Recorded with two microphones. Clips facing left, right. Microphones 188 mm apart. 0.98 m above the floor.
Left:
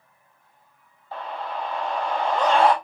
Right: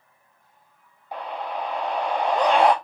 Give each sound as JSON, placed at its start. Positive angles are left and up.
{"t": 1.1, "sound": "a scream", "side_deg": -15, "distance_m": 0.6}